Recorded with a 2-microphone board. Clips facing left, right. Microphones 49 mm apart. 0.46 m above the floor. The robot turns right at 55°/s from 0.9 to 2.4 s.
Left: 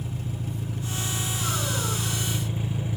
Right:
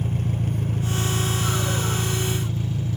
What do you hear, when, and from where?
0.0 s an engine running: 65° right, 0.9 m; by 3.0 s 15° left, 0.9 m